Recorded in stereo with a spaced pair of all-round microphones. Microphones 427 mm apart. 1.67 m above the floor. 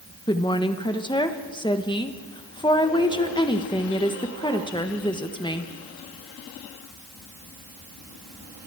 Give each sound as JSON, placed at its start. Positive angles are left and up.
{"t": 0.3, "sound": "a woman speaking", "side_deg": 10, "distance_m": 1.3}